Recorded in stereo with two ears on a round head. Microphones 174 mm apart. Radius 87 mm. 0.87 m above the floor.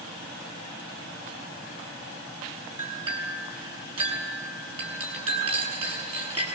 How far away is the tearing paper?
No tearing paper in this recording.